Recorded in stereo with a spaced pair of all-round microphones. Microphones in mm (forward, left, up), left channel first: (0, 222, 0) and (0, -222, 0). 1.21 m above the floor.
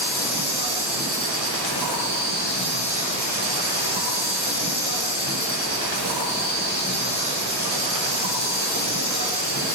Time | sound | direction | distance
0.0 | an insect | 60° right (ahead or behind) | 6 m